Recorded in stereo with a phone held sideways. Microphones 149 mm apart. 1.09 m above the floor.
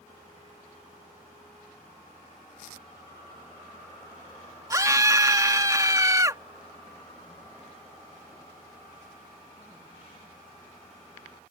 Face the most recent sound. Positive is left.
turn(degrees=-20)  # may be behind; listen again after turning